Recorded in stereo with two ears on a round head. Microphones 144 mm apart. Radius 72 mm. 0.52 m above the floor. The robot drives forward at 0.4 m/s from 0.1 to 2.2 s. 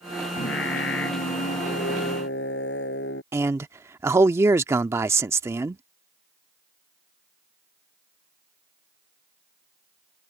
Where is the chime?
No chime in this recording.